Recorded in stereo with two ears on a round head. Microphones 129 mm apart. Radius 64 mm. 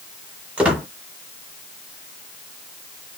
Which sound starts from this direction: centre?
A squeak, at 0.6 s.